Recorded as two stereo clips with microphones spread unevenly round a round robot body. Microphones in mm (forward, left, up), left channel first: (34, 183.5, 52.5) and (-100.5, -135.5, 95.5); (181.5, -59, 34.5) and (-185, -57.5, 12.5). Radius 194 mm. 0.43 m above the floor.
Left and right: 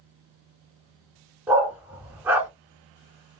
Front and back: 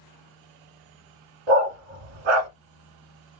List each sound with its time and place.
1.5 s a dog barking: 160° left, 1.8 m